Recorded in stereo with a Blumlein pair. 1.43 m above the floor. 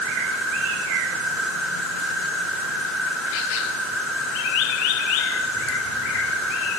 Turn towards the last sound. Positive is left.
turn(degrees=-5)